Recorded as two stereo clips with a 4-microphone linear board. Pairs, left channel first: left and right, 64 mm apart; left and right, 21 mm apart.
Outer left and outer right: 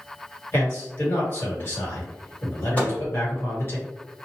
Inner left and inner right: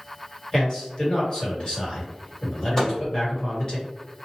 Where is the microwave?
25° left (ahead or behind), 1.2 m.